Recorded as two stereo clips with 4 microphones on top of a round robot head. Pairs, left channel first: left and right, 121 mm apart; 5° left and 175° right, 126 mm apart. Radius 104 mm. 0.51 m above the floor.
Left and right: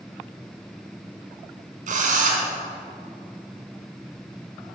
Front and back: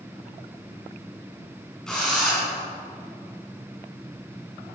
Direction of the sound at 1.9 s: 80° right.